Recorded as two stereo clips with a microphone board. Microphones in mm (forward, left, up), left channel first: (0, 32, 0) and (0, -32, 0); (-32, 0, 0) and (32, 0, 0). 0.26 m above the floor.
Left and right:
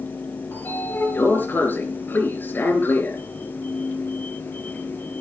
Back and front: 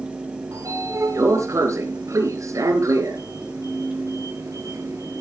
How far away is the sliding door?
About 3 m.